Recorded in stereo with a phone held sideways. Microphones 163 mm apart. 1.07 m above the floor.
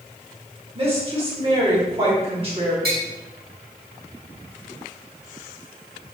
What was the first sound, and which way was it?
A woman speaking, 35° right (ahead or behind).